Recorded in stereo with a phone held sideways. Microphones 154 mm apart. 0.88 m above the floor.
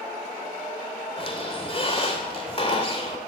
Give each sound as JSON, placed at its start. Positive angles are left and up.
{"t": 1.2, "sound": "a squeak", "side_deg": 40, "distance_m": 2.0}